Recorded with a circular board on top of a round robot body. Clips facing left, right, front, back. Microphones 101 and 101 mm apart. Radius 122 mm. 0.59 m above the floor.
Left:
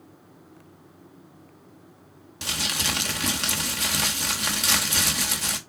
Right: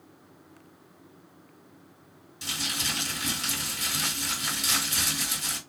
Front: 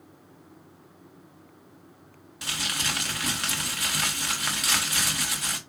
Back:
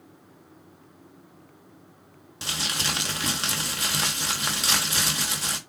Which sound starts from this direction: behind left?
Crumpling, at 2.4 s.